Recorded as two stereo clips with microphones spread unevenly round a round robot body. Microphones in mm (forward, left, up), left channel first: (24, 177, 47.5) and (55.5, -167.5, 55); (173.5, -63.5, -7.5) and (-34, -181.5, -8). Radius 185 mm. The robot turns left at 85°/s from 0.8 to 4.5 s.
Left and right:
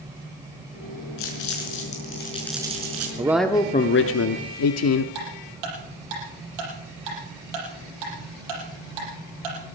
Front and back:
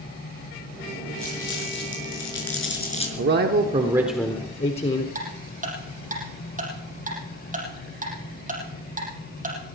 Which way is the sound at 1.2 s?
120° left.